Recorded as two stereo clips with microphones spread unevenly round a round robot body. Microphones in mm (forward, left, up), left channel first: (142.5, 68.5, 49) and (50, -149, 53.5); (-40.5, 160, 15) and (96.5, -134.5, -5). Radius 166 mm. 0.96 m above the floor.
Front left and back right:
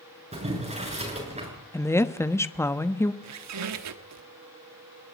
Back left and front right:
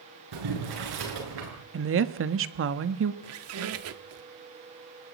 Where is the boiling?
50° right, 8 m.